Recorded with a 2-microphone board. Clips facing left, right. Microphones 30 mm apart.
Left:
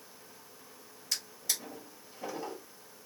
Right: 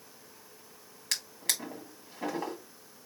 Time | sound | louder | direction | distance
1.1 | a drawer | right 3 dB | 75° right (ahead or behind) | 1.4 m